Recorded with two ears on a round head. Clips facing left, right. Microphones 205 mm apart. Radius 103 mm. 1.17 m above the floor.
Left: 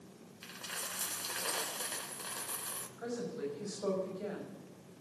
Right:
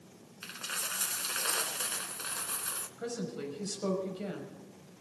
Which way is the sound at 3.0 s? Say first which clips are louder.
Right 1 dB; 45° right (ahead or behind).